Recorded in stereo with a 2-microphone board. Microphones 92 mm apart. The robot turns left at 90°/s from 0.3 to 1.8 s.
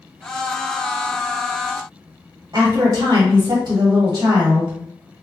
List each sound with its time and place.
2.5 s a woman speaking: 45° right (ahead or behind), 1.4 m